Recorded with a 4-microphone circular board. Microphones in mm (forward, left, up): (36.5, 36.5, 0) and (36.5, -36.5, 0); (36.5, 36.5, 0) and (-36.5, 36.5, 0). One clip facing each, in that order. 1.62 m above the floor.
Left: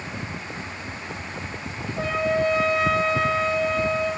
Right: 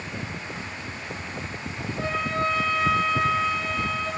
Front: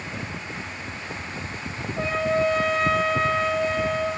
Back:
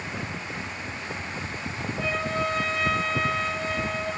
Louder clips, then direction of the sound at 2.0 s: Left 4 dB, front 6 dB; 25° left.